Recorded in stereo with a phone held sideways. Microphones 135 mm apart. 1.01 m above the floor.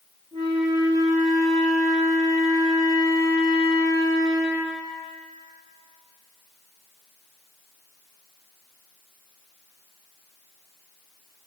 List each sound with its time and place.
0.3 s a flute: 30° right (ahead or behind), 3 m